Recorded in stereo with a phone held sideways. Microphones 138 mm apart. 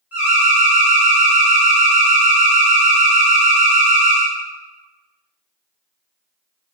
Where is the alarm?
15° right (ahead or behind), 1.3 m.